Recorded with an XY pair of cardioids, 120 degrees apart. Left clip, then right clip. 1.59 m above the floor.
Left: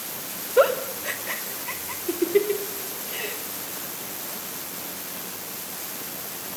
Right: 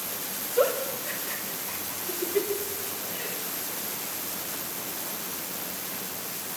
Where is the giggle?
65° left, 2.5 m.